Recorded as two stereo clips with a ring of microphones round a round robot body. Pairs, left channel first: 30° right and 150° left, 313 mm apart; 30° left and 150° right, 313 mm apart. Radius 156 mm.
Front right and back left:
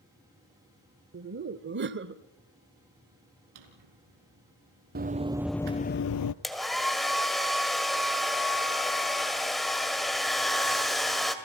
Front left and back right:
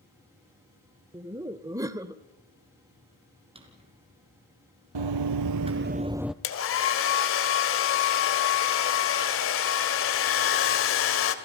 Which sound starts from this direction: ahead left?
A hair dryer, at 6.4 s.